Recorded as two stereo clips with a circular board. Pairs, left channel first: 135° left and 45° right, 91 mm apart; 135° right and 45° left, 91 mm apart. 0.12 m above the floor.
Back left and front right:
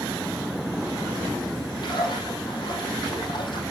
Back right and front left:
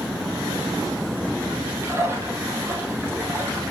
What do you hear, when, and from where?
1.8 s a splash: 105° left, 3.5 m